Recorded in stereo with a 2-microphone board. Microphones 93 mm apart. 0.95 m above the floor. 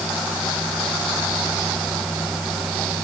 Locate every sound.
Only background noise.